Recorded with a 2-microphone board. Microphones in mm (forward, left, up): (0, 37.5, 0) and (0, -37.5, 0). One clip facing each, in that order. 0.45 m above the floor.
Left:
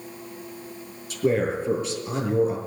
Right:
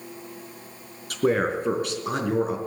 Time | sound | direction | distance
1.1 | a man speaking | 55° right (ahead or behind) | 4 m